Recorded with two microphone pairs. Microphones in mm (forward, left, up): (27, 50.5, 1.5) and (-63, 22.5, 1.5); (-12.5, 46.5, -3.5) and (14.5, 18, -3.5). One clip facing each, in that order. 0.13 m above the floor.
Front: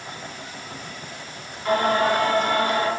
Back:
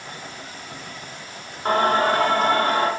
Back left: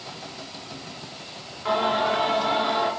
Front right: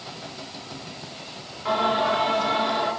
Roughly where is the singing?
Behind right.